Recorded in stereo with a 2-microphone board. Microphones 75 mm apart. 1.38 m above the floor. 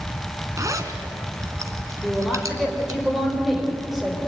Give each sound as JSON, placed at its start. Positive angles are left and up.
{"t": 0.6, "sound": "a zipper", "side_deg": -45, "distance_m": 2.5}
{"t": 2.0, "sound": "a woman speaking", "side_deg": -5, "distance_m": 4.5}